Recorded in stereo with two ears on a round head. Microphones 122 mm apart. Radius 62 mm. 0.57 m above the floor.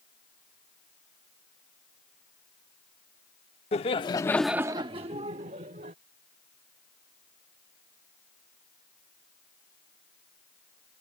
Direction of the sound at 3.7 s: 50° left (ahead or behind).